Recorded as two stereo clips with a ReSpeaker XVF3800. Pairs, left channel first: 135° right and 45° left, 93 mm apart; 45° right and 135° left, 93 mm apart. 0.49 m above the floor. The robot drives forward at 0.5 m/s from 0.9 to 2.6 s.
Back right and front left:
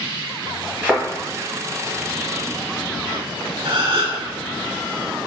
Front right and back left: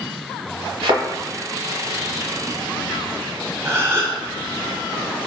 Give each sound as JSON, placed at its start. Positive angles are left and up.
{"t": 0.8, "sound": "a thud", "azimuth_deg": 115, "distance_m": 1.0}
{"t": 3.6, "sound": "a gasp", "azimuth_deg": 75, "distance_m": 0.6}